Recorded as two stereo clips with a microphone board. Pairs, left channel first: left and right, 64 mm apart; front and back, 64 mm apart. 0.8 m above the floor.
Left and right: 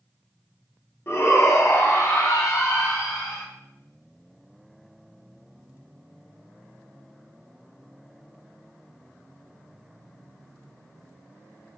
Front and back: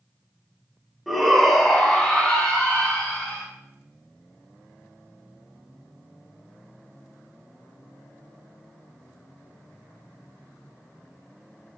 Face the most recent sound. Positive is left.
turn(degrees=75)